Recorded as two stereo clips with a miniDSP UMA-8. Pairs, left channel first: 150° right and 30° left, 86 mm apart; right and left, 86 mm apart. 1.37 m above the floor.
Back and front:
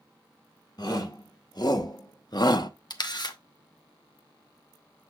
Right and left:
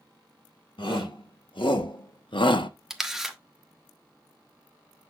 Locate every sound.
0.8 s a shout: 110° right, 1.7 m; by 2.7 s 115° right, 0.6 m
2.9 s a camera shutter: 175° left, 1.0 m